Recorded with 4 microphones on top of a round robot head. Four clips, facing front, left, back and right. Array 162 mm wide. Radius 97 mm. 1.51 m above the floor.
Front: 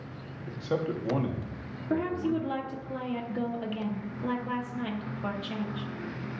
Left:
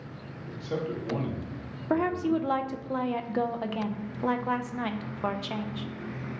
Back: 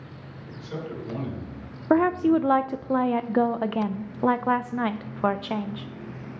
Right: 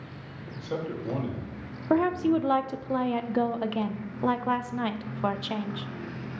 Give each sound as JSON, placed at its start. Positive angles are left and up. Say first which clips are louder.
{"t": 0.5, "sound": "a man speaking", "louder": "left 1 dB, front 5 dB", "azimuth_deg": -5, "distance_m": 1.9}
{"t": 1.9, "sound": "a woman speaking", "louder": "right 3 dB, back 9 dB", "azimuth_deg": -170, "distance_m": 0.5}